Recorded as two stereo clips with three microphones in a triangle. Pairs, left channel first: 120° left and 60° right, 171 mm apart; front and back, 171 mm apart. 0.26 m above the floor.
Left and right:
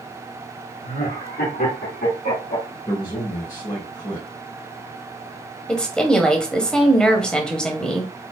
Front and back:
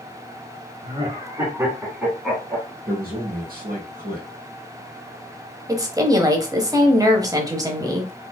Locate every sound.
0.8 s laughter: 130° left, 2 m; by 2.7 s 85° left, 2.5 m
2.9 s a man speaking: 170° left, 2.0 m
5.7 s a woman speaking: 165° right, 1.0 m